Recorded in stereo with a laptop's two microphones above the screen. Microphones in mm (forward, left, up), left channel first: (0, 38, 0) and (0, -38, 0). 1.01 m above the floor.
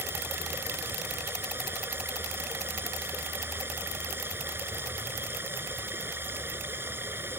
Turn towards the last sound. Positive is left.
turn(degrees=-30)  # may be behind; listen again after turning